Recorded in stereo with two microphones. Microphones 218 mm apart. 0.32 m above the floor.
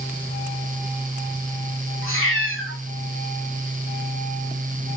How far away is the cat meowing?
About 7.5 m.